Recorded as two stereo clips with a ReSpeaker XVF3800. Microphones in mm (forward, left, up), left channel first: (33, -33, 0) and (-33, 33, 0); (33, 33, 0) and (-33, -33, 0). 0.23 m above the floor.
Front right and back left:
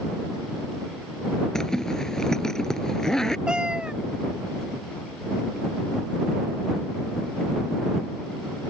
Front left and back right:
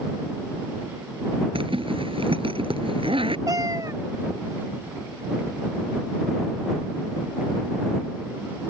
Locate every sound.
1.6 s a zipper: 130° right
3.5 s a cat meowing: 150° right